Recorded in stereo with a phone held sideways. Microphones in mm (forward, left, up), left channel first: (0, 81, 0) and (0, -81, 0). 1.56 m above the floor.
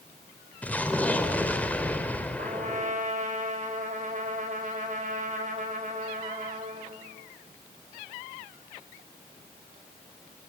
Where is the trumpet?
50° right (ahead or behind), 6 m.